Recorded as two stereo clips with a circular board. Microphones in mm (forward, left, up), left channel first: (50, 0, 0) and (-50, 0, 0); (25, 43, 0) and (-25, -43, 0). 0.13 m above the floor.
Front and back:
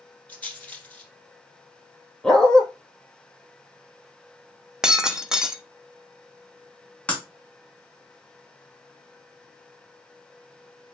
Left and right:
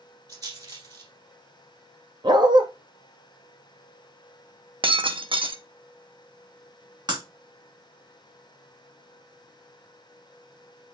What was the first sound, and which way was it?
A rattle, 75° right.